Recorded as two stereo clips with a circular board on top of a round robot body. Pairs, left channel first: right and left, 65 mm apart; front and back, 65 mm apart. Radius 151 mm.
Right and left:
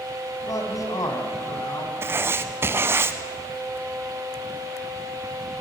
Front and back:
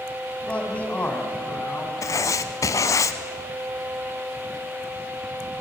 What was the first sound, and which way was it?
A man speaking, 70° right.